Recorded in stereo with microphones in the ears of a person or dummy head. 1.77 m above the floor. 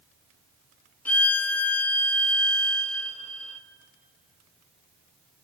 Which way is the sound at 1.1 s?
10° left (ahead or behind).